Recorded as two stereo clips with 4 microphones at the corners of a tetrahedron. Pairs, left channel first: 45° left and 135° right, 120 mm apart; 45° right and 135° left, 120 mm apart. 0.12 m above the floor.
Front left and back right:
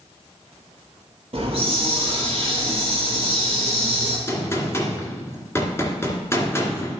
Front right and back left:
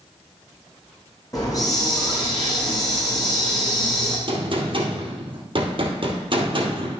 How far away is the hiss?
About 2.5 m.